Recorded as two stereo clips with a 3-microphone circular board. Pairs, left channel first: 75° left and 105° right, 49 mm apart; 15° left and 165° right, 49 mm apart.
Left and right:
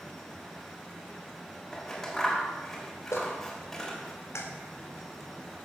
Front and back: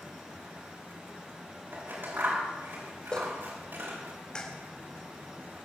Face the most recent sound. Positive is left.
turn(degrees=85)